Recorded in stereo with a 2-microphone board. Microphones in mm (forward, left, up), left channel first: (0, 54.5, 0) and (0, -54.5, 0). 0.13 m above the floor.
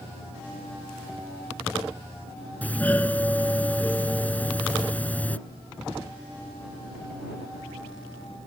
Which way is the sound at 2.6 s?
15° left (ahead or behind).